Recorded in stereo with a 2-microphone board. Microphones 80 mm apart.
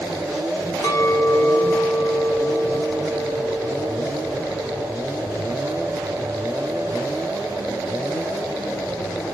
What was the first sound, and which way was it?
A clink, 50° left (ahead or behind).